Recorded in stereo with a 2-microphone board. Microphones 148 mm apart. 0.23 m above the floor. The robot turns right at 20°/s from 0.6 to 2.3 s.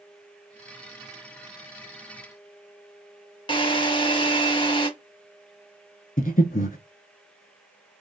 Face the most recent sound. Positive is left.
turn(degrees=70)  # may be behind; listen again after turning